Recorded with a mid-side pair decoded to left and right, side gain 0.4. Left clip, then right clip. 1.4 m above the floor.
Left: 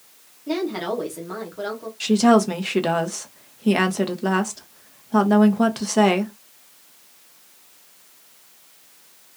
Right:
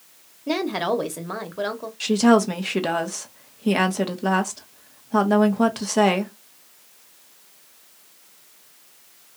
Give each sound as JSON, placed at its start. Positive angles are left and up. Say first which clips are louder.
{"t": 0.5, "sound": "a woman speaking", "louder": "right 2 dB", "azimuth_deg": -50, "distance_m": 1.0}
{"t": 2.0, "sound": "a woman speaking", "louder": "left 1 dB", "azimuth_deg": 0, "distance_m": 0.8}